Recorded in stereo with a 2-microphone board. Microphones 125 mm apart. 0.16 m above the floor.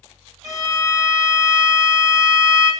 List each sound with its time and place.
0.4 s a violin: 25° right (ahead or behind), 1.0 m